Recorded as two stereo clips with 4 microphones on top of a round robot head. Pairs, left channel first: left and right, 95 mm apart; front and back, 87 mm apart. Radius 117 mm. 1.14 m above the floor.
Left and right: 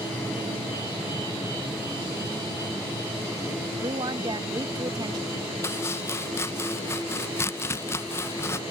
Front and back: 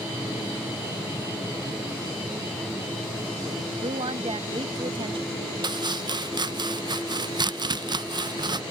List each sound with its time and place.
3.7 s a woman speaking: 145° right
5.6 s chopping: 155° left